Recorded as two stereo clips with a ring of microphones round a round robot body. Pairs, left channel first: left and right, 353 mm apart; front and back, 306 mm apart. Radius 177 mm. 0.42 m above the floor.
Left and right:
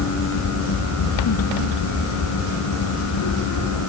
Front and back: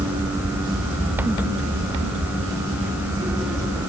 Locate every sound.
Only background noise.